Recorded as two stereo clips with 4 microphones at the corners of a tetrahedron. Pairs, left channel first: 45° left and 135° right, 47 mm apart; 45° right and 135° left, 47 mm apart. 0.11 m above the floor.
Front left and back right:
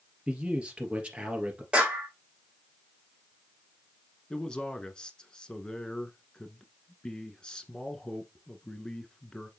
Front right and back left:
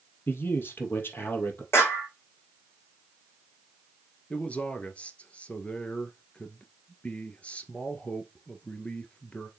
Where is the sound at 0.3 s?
70° right, 2.5 m.